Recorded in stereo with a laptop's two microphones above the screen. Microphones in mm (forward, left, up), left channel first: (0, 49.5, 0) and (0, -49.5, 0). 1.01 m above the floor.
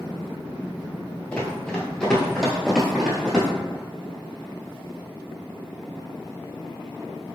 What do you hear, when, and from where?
1.3 s running footsteps: 15° left (ahead or behind), 1.0 m; by 3.5 s 5° right (ahead or behind), 1.3 m